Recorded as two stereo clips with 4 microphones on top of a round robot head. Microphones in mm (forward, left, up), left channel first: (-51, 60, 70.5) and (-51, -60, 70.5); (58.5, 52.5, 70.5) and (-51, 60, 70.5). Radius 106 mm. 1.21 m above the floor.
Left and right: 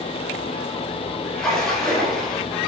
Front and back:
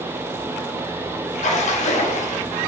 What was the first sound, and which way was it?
A splash, 5° left.